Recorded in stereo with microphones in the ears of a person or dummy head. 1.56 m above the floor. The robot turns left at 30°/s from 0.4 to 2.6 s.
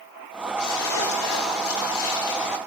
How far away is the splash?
About 4 m.